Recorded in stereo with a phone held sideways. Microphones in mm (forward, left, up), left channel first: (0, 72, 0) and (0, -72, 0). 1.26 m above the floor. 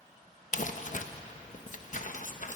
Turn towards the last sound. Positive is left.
turn(degrees=60)  # may be behind; listen again after turning